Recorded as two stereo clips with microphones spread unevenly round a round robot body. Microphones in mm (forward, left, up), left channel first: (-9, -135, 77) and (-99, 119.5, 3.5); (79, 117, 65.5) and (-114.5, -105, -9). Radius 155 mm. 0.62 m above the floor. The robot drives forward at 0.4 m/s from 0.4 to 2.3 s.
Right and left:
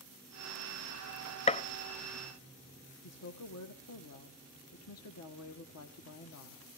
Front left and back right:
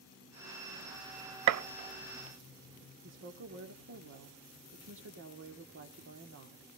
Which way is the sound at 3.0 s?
105° right.